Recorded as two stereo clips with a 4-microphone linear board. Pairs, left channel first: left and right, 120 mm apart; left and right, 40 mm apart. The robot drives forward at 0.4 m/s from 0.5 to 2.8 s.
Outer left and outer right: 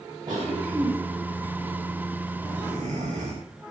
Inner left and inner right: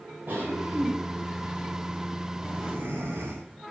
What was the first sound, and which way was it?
A cough, 35° right (ahead or behind).